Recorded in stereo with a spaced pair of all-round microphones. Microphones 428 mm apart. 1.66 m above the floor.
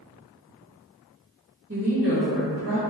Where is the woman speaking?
35° right (ahead or behind), 1.2 m.